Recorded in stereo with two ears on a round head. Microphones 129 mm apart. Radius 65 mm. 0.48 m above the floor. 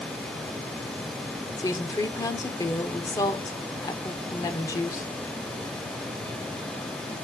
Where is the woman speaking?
25° left (ahead or behind), 1.0 m.